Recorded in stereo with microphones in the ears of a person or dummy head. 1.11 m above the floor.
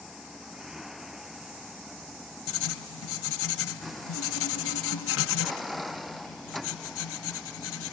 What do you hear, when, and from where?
0.0 s a vehicle: centre (ahead or behind); by 7.9 s 5° left (ahead or behind)
2.5 s writing: 70° left (ahead or behind)